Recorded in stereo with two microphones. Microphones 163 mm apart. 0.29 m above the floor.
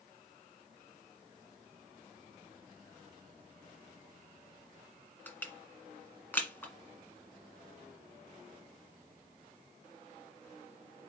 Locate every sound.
5.3 s crushing: 10° left (ahead or behind), 1.4 m